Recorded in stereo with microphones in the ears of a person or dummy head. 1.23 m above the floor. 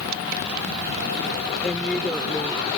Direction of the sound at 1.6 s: 5° left (ahead or behind).